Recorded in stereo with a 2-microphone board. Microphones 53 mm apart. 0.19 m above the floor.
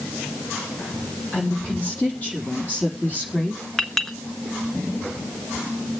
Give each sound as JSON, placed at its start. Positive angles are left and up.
{"t": 1.3, "sound": "a woman speaking", "side_deg": 30, "distance_m": 5.5}
{"t": 3.8, "sound": "a clink", "side_deg": 10, "distance_m": 1.3}